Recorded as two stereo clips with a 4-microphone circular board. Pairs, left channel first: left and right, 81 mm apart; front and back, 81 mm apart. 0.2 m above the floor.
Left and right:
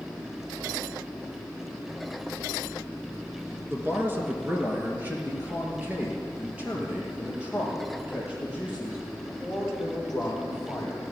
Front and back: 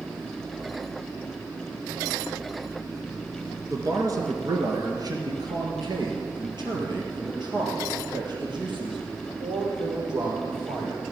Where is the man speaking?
145° right, 2 m; by 11.0 s 170° right, 7 m.